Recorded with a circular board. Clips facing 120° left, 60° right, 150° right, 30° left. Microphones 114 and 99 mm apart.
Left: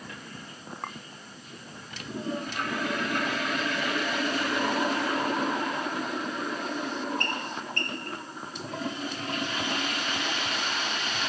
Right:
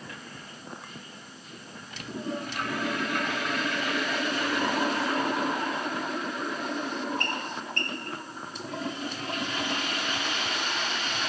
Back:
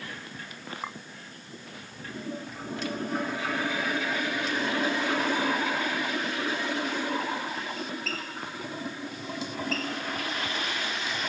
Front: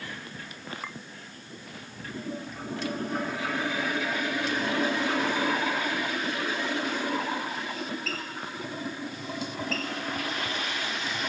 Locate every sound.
0.8 s a clink: 140° left